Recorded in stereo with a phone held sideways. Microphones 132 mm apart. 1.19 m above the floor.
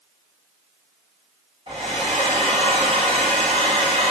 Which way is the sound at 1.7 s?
40° right (ahead or behind).